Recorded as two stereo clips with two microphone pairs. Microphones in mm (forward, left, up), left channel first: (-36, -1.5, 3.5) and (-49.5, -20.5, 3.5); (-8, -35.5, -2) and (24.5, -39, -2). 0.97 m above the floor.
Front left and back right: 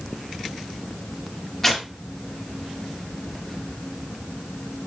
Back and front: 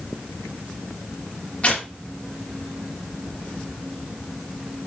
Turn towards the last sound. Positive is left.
turn(degrees=130)